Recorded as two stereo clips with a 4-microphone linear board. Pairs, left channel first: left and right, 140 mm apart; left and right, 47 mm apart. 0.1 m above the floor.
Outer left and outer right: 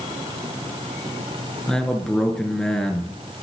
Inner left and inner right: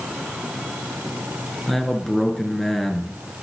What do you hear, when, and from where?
1.7 s a man speaking: 5° left (ahead or behind), 1.2 m